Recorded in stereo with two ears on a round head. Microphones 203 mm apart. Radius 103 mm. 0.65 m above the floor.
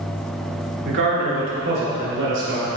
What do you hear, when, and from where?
0.8 s a man speaking: 55° right (ahead or behind), 2.5 m; by 2.7 s 75° right (ahead or behind), 3.5 m